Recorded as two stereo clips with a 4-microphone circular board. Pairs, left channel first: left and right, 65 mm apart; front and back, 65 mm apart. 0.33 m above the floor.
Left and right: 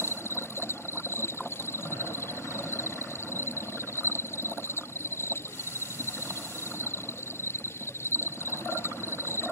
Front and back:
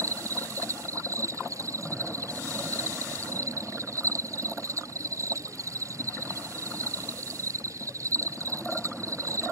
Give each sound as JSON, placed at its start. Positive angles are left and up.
{"t": 0.0, "sound": "an insect", "azimuth_deg": 140}